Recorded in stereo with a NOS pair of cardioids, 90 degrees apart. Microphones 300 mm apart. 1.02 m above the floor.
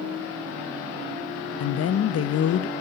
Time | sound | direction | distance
1.6 | a woman speaking | 55° left | 0.8 m